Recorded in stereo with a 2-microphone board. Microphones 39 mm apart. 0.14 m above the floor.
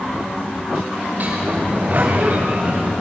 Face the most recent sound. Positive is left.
turn(degrees=-45)  # may be behind; listen again after turning